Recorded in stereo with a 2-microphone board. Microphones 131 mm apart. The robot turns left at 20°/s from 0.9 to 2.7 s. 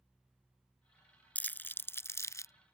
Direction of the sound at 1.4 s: 10° left (ahead or behind).